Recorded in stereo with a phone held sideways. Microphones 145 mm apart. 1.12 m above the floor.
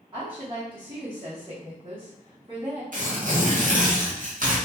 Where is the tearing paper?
65° right (ahead or behind), 0.8 m.